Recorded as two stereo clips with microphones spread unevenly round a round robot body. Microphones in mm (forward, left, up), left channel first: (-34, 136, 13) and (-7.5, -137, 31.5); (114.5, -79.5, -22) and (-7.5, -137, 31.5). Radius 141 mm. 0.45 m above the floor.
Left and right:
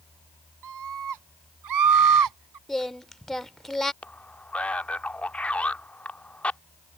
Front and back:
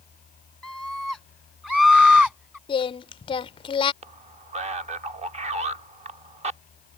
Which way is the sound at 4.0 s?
170° left.